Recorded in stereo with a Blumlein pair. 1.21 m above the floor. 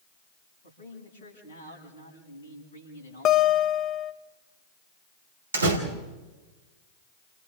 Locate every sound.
0.6 s a man speaking: 65° left, 7.5 m
3.2 s a guitar: 30° left, 1.0 m
5.5 s a door slam: 70° right, 2.5 m